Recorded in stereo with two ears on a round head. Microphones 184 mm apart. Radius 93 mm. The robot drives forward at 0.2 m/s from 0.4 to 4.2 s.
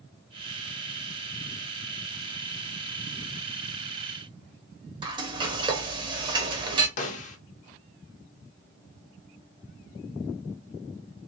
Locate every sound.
5.0 s frying: 25° right (ahead or behind), 0.6 m
7.0 s a snare drum: 40° left (ahead or behind), 0.5 m